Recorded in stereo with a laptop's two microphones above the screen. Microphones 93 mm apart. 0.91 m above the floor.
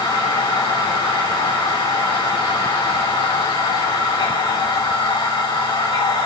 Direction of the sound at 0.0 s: 75° left (ahead or behind).